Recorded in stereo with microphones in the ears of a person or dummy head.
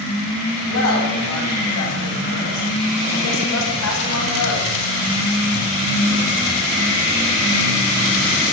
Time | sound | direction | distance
0.7 | a woman speaking | 85° left | 9.5 m